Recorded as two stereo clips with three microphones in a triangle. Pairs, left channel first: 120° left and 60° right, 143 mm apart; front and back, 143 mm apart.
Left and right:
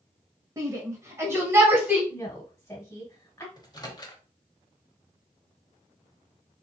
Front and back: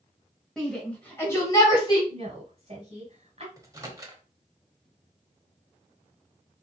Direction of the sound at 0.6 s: 85° right.